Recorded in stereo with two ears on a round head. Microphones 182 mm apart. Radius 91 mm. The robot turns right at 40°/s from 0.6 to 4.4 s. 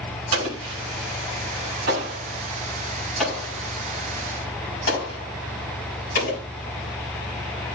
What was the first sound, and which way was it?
An explosion, 75° right (ahead or behind).